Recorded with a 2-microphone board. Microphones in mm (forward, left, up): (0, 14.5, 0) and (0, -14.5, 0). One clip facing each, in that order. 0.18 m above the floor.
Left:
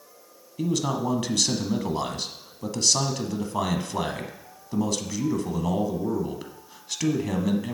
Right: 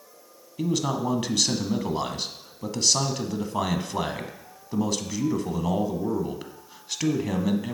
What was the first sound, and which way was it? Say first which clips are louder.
A man speaking: even; 10° right (ahead or behind).